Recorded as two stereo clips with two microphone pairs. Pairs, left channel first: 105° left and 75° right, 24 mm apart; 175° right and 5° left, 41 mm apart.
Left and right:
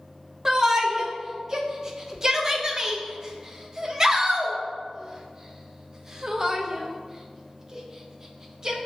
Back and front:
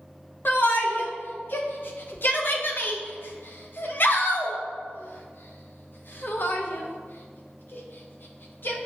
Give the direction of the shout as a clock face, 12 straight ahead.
5 o'clock.